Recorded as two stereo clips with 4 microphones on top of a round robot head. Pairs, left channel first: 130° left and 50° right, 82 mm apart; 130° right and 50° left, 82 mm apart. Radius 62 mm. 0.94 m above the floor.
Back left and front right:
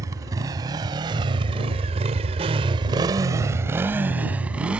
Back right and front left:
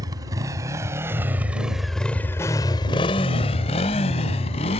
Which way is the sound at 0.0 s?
Straight ahead.